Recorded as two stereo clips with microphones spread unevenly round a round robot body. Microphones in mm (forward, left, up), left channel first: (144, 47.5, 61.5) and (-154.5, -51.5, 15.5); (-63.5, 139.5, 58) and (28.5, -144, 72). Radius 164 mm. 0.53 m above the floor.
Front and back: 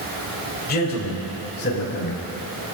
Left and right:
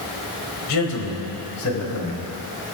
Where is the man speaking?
80° left, 3.5 m; by 2.3 s 75° left, 5.5 m.